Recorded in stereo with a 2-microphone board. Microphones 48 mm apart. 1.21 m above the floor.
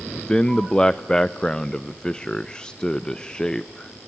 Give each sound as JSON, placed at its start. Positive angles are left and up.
{"t": 0.2, "sound": "a man speaking", "side_deg": 20, "distance_m": 0.5}